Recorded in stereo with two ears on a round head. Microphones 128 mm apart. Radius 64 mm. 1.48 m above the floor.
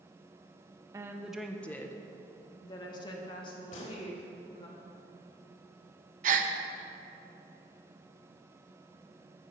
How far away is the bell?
No bell in this recording.